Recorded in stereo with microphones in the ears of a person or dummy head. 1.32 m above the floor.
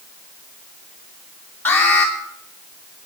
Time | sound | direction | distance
1.6 | an alarm | 10° left (ahead or behind) | 2.5 m